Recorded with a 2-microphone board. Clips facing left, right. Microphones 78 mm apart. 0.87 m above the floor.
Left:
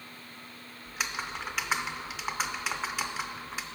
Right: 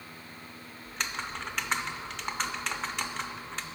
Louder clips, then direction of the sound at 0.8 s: Left 1 dB; 5° left (ahead or behind).